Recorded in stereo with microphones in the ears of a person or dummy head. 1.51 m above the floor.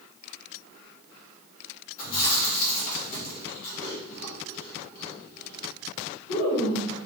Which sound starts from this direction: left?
Chewing, at 2.0 s.